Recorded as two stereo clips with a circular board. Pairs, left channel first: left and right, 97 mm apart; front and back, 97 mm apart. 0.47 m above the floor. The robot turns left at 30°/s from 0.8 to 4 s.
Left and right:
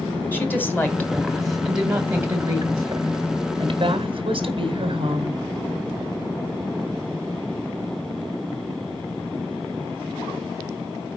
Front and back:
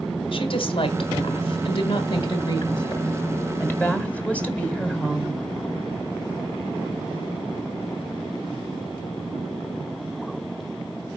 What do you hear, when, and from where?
0.3 s a woman speaking: 20° left, 2 m; by 5.4 s 75° right, 2 m